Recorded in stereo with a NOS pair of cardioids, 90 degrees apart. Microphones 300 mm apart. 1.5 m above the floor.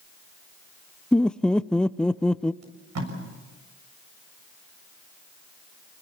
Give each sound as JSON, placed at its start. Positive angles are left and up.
{"t": 1.1, "sound": "laughter", "azimuth_deg": 5, "distance_m": 0.6}
{"t": 2.6, "sound": "tape being pulled", "azimuth_deg": -60, "distance_m": 7.0}